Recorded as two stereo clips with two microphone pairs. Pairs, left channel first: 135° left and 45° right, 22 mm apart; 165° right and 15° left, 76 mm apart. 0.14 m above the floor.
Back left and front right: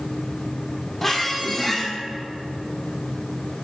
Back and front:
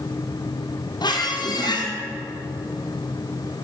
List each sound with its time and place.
1.0 s a squeak: 140° right, 1.3 m